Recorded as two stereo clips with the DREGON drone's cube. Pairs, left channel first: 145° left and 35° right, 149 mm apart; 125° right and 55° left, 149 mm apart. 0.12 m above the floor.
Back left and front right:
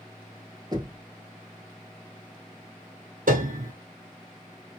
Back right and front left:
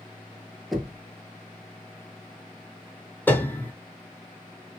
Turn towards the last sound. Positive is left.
turn(degrees=-45)